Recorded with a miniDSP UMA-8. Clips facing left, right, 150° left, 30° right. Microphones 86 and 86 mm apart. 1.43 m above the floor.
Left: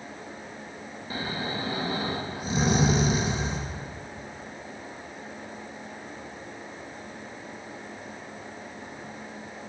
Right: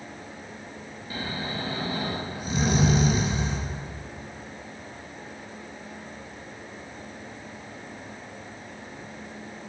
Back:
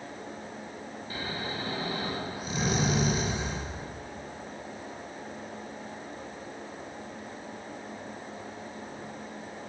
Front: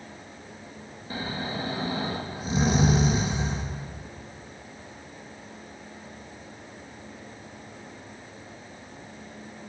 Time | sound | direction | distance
1.1 | snoring | 30° left | 1.8 m